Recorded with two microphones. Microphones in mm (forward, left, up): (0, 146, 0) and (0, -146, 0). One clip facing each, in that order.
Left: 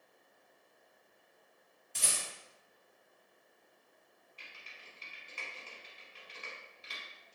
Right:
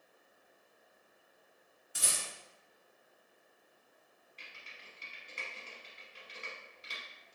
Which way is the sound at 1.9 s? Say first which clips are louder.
Even; 5° right (ahead or behind).